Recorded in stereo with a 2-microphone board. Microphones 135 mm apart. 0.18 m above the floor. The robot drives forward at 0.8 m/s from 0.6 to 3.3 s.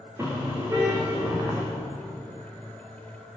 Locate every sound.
0.2 s a car horn: 20° right (ahead or behind), 6 m; by 1.6 s 25° right (ahead or behind), 5.5 m